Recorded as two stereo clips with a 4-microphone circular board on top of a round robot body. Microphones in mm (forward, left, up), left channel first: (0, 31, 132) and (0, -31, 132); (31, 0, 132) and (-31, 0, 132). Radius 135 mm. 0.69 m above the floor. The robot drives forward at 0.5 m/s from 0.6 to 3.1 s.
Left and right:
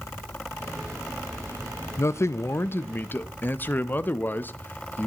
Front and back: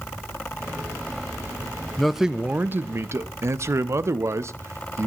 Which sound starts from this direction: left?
A man speaking, at 2.0 s.